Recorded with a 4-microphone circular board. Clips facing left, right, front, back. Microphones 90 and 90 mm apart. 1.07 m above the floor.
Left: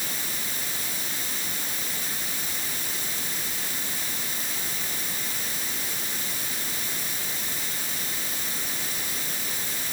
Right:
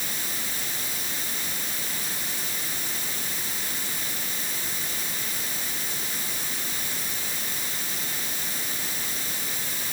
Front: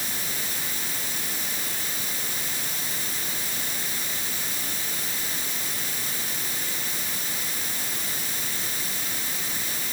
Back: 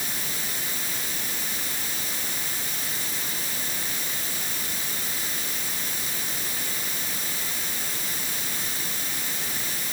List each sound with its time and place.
Only background noise.